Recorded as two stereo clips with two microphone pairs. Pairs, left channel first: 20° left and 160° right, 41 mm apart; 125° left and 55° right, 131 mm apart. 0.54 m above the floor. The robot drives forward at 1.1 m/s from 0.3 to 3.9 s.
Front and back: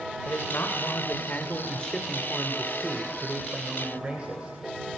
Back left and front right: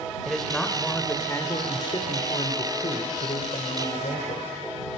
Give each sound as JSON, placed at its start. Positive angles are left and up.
{"t": 0.2, "sound": "a man speaking", "azimuth_deg": 40, "distance_m": 2.5}